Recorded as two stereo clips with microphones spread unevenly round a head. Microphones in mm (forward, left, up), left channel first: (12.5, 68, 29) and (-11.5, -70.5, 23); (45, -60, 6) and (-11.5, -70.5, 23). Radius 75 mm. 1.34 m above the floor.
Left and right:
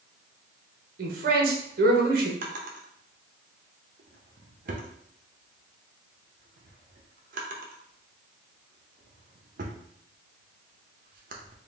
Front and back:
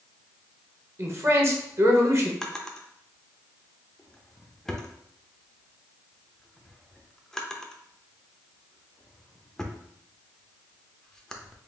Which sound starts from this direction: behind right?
A man speaking, at 1.0 s.